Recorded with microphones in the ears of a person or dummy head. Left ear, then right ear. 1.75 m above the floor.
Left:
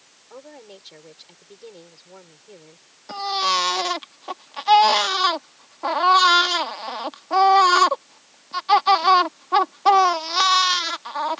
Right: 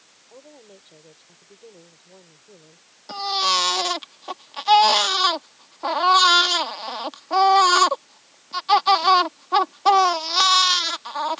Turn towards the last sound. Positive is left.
turn(degrees=0)  # may be behind; listen again after turning